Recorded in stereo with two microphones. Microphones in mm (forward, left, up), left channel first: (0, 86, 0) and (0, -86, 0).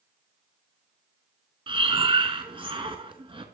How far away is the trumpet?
No trumpet in this recording.